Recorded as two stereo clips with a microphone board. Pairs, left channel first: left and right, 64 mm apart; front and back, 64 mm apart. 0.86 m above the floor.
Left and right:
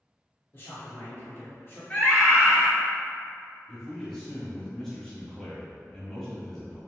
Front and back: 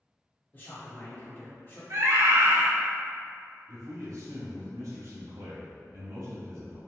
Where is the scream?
150° left, 1.6 m.